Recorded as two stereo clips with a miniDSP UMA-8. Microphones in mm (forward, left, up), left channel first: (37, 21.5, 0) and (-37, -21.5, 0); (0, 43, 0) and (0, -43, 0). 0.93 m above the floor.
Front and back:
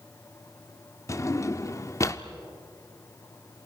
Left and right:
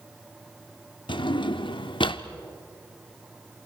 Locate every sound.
1.1 s a drawer: 80° left, 0.8 m